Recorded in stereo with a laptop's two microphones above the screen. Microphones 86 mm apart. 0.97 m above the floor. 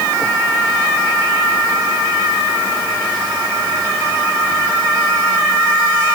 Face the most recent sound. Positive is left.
No sound to turn to.